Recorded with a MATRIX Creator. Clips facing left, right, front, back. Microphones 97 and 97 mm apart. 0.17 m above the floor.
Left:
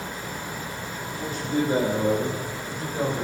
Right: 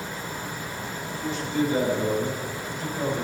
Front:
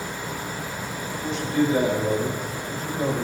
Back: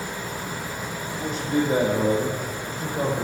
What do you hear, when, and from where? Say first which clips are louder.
1.1 s a man speaking: left 1 dB, back 1 dB; 130° left, 7.5 m; by 3.2 s 140° left, 7.5 m